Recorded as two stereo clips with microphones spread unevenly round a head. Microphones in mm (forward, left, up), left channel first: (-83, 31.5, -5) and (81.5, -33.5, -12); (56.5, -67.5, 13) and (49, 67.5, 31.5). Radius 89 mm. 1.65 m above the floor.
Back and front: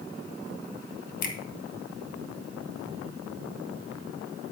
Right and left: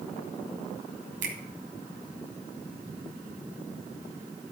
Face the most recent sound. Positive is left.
turn(degrees=125)